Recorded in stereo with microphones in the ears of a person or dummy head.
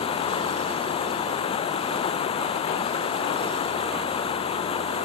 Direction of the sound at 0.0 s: 35° left (ahead or behind).